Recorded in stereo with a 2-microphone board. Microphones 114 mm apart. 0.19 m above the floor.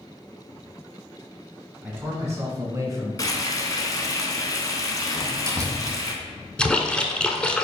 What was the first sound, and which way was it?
A man speaking, 20° right (ahead or behind).